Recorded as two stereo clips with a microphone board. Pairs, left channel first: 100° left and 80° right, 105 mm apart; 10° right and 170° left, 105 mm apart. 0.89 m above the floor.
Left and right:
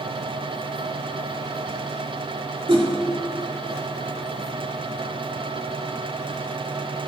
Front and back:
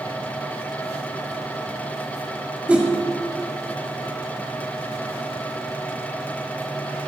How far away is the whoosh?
About 2 m.